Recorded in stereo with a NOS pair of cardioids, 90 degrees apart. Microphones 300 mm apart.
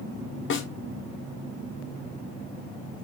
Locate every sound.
0.5 s a snare drum: 40° left, 0.6 m